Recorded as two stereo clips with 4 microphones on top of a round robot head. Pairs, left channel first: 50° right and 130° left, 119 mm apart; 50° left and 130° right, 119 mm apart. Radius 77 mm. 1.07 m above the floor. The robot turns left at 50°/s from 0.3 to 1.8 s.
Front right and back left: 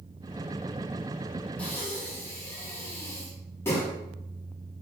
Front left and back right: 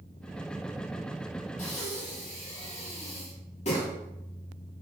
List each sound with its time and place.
1.6 s breathing: 30° left, 2.5 m; by 3.9 s 20° left, 2.5 m